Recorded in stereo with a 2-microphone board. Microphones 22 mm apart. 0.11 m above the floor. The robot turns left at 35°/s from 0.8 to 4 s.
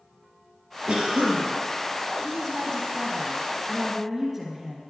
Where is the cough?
40° right (ahead or behind), 1.6 m.